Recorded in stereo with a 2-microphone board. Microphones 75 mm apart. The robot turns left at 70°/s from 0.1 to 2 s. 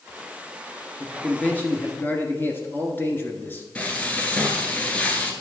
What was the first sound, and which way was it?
A man speaking, 10° left (ahead or behind).